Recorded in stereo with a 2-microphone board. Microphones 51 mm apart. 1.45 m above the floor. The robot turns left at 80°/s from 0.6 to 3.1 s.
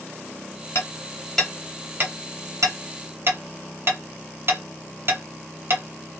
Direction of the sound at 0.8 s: 55° left (ahead or behind).